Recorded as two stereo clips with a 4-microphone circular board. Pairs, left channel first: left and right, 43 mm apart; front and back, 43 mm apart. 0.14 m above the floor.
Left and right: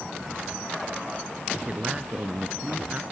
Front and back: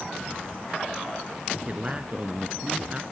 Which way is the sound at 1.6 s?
135° right.